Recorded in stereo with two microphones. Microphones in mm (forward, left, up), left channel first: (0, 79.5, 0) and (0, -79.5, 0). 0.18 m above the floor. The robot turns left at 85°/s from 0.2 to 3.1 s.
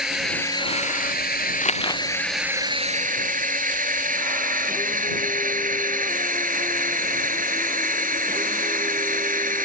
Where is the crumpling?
45° left (ahead or behind); by 2.0 s 10° left (ahead or behind).